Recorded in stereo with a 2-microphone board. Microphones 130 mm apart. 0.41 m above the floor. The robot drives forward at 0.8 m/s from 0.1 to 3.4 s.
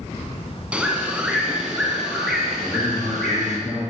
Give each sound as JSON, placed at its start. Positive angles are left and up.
{"t": 0.7, "sound": "a bird", "side_deg": -10, "distance_m": 1.2}
{"t": 2.6, "sound": "a man speaking", "side_deg": 5, "distance_m": 4.0}